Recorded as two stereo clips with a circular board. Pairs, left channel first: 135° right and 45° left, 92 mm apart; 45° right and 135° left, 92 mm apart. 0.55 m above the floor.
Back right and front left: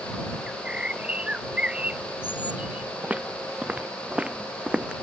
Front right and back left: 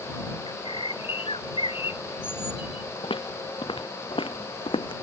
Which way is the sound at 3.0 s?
30° right.